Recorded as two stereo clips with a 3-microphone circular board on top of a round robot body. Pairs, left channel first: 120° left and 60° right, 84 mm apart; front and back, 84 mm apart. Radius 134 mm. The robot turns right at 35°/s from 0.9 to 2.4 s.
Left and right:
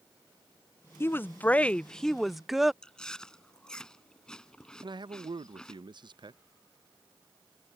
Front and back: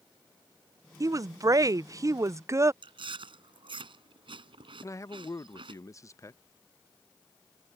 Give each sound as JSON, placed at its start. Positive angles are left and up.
{"t": 1.0, "sound": "a woman speaking", "azimuth_deg": 165}
{"t": 2.8, "sound": "chewing", "azimuth_deg": -160}
{"t": 4.8, "sound": "a man speaking", "azimuth_deg": -50}